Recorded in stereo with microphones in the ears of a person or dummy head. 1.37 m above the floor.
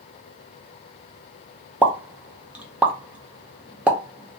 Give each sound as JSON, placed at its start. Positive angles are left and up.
{"t": 1.8, "sound": "a pop", "side_deg": -10, "distance_m": 0.5}